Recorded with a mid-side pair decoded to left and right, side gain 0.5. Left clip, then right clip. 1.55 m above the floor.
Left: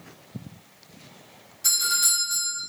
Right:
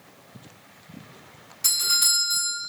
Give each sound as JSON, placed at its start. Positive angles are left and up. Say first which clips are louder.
{"t": 1.6, "sound": "a doorbell", "louder": "right 1 dB", "azimuth_deg": -65, "distance_m": 1.9}